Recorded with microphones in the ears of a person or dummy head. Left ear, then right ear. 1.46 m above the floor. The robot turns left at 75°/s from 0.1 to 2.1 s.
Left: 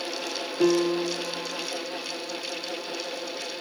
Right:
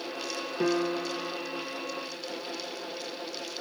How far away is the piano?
About 1.5 m.